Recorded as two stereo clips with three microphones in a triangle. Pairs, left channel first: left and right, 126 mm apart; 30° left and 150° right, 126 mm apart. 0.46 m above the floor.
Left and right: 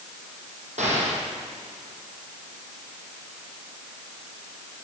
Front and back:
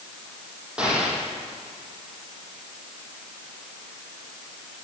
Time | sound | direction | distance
0.8 | an explosion | 65° right | 3 m